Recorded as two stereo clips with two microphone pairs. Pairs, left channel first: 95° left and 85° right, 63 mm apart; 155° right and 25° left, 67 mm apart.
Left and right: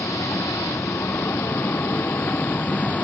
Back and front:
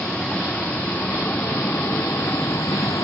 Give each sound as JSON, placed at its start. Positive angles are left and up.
{"t": 0.0, "sound": "a vehicle", "azimuth_deg": 125}